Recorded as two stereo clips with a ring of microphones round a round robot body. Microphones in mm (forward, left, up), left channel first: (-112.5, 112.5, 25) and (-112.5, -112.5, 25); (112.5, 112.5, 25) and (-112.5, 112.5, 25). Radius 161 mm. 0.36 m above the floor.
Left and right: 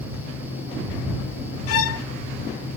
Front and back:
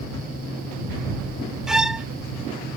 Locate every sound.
1.7 s a violin: 95° left